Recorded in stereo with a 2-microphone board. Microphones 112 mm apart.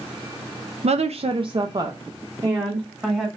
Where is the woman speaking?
70° right (ahead or behind), 0.5 m; by 3.3 s 10° right (ahead or behind), 1.4 m.